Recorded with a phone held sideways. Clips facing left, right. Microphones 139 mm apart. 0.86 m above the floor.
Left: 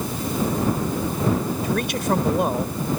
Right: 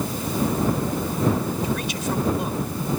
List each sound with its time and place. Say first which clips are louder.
1.6 s a man speaking: left 3 dB; 60° left (ahead or behind)